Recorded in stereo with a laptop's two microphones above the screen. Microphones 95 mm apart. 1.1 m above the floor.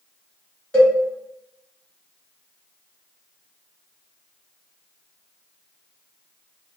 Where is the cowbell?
10° left (ahead or behind), 1.6 m.